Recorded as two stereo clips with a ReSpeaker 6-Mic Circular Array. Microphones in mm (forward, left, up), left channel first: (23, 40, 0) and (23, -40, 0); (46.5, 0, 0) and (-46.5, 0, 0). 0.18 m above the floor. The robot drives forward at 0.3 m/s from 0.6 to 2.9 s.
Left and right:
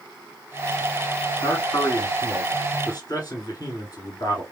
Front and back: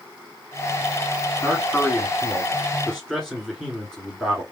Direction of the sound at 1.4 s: 80° left.